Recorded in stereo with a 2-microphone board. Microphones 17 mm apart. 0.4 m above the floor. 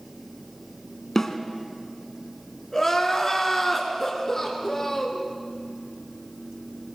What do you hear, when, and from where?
1.1 s a snare drum: 25° left (ahead or behind), 1.8 m
2.7 s crying: 20° left (ahead or behind), 3 m